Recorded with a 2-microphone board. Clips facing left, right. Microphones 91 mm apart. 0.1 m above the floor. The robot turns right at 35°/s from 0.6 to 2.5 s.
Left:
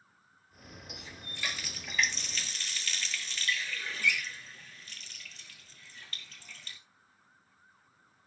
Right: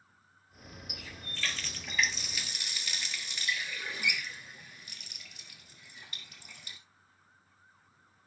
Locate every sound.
0.9 s a running tap: 30° left (ahead or behind), 1.5 m; by 6.8 s 15° right (ahead or behind), 1.5 m